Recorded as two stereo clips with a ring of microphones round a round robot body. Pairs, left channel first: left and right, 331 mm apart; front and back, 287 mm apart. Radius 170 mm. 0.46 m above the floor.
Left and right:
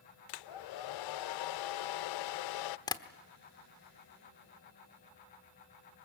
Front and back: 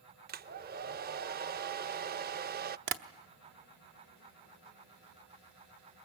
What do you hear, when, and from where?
0.3 s a hair dryer: 120° left, 0.5 m
2.9 s tapping: 165° left, 1.0 m